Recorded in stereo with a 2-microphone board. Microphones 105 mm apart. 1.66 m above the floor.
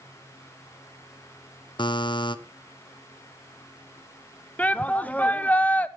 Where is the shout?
15° left (ahead or behind), 0.9 m.